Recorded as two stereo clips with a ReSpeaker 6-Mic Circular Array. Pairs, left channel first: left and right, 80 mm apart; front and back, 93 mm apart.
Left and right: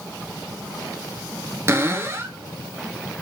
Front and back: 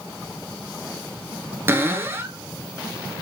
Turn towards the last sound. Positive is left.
turn(degrees=-130)